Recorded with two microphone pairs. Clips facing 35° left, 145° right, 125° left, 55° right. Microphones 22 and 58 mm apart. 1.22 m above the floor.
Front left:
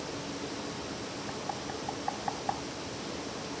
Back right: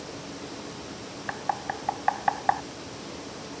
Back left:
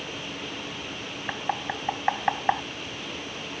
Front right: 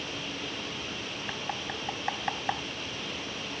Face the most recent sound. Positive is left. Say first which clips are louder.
# back right 10 dB, back left 8 dB
turn(degrees=-170)